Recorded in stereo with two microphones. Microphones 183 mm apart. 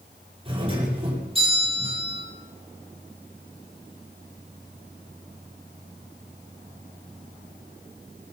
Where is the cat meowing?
I don't hear a cat meowing.